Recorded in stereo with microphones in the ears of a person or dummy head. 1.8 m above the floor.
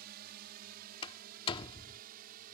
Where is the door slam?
30° left (ahead or behind).